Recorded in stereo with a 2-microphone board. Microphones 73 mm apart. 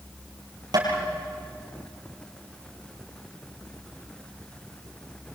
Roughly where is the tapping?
Right.